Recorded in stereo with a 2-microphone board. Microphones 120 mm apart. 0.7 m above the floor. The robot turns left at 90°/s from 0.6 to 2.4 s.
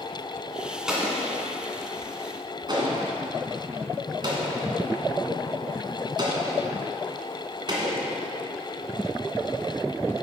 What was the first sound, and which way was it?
An explosion, 5° right (ahead or behind).